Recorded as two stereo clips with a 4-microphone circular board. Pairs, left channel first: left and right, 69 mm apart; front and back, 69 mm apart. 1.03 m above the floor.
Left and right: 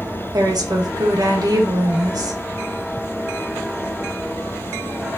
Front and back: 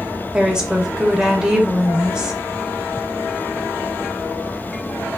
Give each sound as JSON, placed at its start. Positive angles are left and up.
{"t": 0.3, "sound": "a woman speaking", "azimuth_deg": -105, "distance_m": 0.9}